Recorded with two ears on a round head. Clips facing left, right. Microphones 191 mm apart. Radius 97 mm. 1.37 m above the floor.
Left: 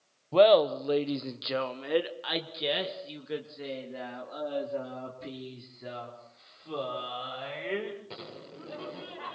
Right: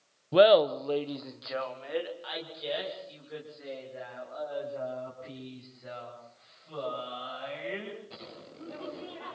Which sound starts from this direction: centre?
Laughter, at 0.3 s.